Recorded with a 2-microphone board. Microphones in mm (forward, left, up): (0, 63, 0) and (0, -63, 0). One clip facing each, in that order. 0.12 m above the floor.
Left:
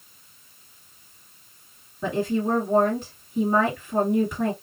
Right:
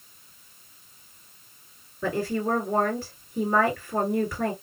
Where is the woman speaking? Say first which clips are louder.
Left 2 dB; 20° left (ahead or behind), 2 m.